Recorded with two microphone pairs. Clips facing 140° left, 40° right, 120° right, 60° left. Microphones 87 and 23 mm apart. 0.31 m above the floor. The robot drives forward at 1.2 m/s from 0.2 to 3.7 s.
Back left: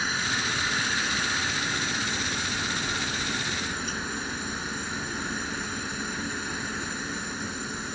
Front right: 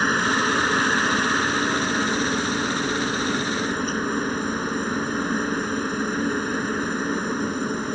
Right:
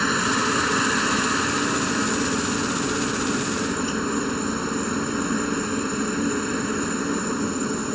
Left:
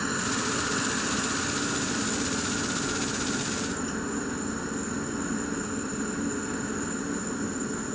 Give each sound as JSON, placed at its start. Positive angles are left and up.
{"t": 0.0, "sound": "a helicopter", "azimuth_deg": -70}